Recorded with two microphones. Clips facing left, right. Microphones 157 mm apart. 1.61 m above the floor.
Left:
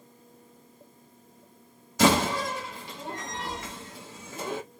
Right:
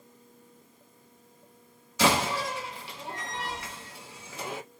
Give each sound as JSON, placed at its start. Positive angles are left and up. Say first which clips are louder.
{"t": 2.0, "sound": "a door slam", "louder": "left 3 dB", "side_deg": 45, "distance_m": 1.7}